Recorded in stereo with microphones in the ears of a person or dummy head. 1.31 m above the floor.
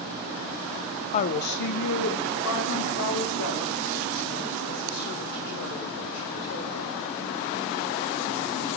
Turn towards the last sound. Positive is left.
turn(degrees=75)  # may be behind; listen again after turning